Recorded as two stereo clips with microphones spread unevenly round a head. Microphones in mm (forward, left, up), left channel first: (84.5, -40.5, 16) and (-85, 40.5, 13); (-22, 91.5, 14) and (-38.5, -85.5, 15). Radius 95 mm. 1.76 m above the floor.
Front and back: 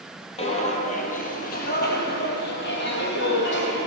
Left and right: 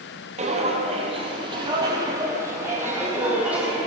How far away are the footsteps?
About 2 m.